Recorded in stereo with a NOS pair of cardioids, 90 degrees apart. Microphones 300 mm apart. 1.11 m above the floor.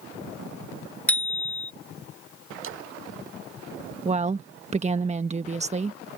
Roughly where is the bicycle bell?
Ahead.